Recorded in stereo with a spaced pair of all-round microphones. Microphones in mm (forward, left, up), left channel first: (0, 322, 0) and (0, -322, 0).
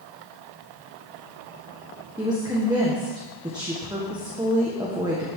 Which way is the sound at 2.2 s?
5° right (ahead or behind).